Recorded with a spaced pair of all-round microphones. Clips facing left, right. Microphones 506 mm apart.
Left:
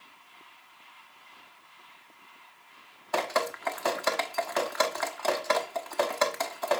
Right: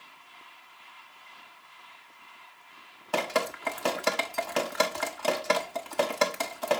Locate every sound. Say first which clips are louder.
3.1 s dripping: right 1 dB; 50° right (ahead or behind), 1.2 m